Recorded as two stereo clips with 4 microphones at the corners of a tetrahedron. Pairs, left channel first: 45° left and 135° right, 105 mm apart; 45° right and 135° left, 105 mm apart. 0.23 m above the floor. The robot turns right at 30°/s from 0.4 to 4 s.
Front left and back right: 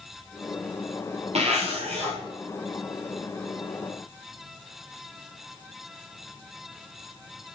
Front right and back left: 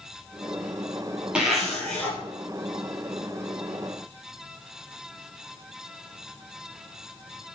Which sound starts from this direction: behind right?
A zipper, at 1.4 s.